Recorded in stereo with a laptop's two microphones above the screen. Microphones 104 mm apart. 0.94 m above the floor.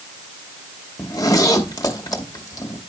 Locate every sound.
1.0 s a zipper: 35° left (ahead or behind), 1.1 m